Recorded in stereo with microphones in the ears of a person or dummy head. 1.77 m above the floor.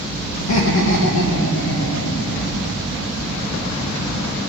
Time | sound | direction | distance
0.4 | laughter | 70° left (ahead or behind) | 2 m